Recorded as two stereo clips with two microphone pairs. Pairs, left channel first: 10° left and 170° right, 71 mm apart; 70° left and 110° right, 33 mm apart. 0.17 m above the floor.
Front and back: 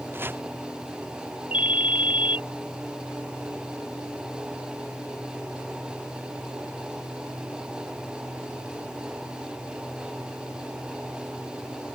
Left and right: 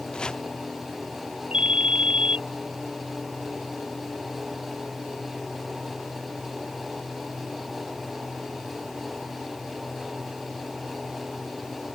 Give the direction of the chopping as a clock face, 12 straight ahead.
8 o'clock.